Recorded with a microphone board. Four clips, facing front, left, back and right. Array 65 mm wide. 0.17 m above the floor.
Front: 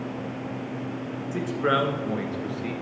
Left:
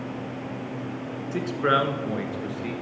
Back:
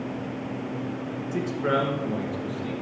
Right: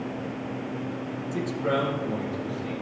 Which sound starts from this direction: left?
A man speaking, at 1.3 s.